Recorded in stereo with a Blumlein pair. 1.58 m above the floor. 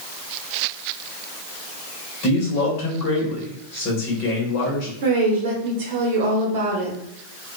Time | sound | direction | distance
2.2 | a man speaking | 40° left | 1.1 m
5.0 | a woman speaking | 55° right | 1.1 m